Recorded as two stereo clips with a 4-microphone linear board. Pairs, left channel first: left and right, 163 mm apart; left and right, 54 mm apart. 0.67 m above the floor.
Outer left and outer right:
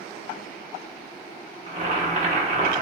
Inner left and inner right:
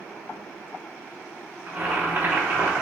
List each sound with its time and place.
1.7 s boiling: 45° right (ahead or behind), 0.8 m